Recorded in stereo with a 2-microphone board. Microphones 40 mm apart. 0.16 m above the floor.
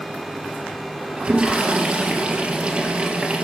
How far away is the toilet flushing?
About 3 m.